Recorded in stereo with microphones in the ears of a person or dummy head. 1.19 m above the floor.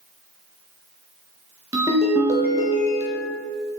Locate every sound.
1.7 s a ringtone: 15° right (ahead or behind), 0.7 m